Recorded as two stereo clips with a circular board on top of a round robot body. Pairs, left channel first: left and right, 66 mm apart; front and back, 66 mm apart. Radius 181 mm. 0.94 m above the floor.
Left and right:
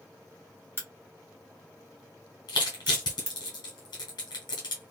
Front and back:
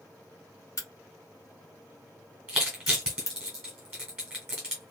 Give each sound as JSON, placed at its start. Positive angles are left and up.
{"t": 0.8, "sound": "a crack", "azimuth_deg": -35, "distance_m": 1.2}
{"t": 2.5, "sound": "crushing", "azimuth_deg": 100, "distance_m": 0.8}